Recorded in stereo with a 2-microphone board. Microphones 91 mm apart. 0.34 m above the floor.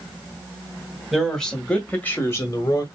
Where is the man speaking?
Centre (ahead or behind), 1.9 m; by 2.9 s 45° left (ahead or behind), 1.4 m.